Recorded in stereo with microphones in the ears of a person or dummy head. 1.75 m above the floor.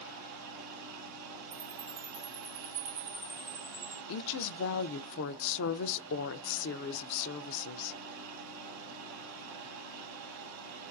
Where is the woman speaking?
65° left (ahead or behind), 0.5 m.